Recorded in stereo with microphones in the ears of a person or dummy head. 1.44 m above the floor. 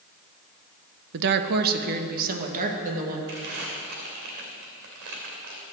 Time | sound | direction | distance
1.1 | a woman speaking | 65° right (ahead or behind) | 0.9 m
3.3 | crumpling | 60° right (ahead or behind) | 2.5 m